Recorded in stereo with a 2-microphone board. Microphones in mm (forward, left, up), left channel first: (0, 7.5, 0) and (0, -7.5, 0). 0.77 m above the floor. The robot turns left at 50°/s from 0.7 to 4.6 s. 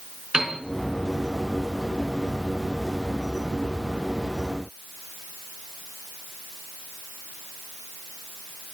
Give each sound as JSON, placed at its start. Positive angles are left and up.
{"t": 0.3, "sound": "a piano", "side_deg": -60, "distance_m": 3.5}